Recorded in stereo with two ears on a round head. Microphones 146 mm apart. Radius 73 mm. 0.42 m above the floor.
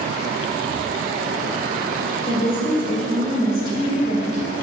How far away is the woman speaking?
About 2 m.